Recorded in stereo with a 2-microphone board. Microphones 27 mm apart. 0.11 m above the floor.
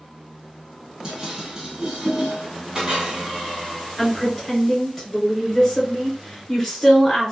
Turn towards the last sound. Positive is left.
turn(degrees=10)  # may be behind; listen again after turning